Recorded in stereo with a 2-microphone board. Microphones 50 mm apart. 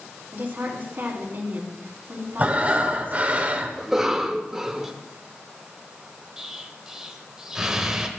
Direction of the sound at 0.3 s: 40° right (ahead or behind).